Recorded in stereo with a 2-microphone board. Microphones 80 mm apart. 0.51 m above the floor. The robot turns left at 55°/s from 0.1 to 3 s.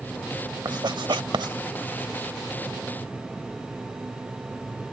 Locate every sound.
0.7 s writing: 60° right (ahead or behind); by 1.6 s 70° right (ahead or behind)